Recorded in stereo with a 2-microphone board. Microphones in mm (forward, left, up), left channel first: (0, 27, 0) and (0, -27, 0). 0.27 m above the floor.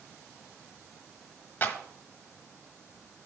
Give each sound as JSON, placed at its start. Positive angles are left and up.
{"t": 1.6, "sound": "a clap", "side_deg": 35, "distance_m": 1.5}